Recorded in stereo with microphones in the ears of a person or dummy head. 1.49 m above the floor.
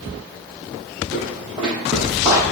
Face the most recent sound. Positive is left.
turn(degrees=-35)  # may be behind; listen again after turning